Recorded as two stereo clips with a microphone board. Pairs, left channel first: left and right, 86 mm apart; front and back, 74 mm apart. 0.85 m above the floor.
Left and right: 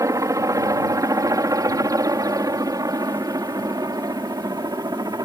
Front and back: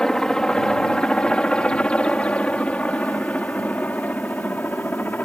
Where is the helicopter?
75° right; by 5.2 s 60° right.